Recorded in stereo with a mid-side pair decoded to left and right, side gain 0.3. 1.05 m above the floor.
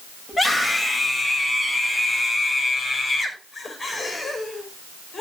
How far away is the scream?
About 6.5 m.